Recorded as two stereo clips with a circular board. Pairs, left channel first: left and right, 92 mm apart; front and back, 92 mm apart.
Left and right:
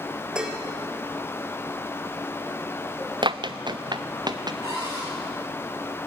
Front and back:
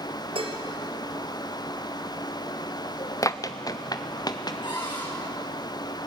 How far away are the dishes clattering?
About 2 m.